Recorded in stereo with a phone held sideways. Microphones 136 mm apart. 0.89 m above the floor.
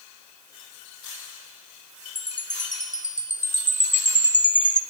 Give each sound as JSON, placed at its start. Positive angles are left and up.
{"t": 2.1, "sound": "a chime", "side_deg": 70, "distance_m": 2.0}